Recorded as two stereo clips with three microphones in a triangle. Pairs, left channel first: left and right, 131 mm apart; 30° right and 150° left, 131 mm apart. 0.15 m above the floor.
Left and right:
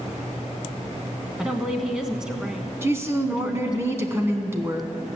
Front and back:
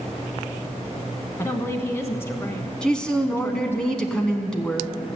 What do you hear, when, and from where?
1.4 s a woman speaking: 15° right, 1.0 m
2.8 s a woman speaking: 100° right, 1.1 m